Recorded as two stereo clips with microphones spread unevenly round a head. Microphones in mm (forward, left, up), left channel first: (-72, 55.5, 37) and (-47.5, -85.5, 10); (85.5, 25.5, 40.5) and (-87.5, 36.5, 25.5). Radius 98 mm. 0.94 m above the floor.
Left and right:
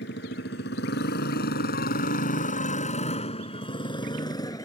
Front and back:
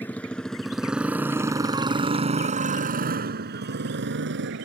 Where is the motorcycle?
75° left; by 4.7 s 165° left.